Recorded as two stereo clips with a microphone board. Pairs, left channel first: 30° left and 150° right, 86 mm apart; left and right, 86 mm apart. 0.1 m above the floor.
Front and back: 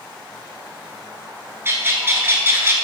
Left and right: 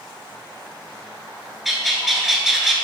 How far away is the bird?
About 1.4 m.